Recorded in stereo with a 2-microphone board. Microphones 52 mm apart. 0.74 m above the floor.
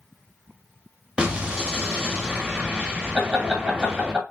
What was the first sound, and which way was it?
An explosion, 15° right (ahead or behind).